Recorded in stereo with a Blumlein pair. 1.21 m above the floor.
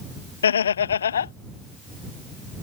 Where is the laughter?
65° left.